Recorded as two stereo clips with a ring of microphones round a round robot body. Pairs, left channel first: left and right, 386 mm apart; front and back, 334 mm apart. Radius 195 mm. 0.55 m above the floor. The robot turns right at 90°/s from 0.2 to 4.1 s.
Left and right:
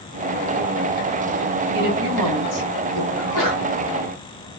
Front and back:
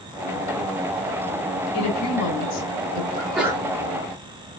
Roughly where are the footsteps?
No footsteps in this recording.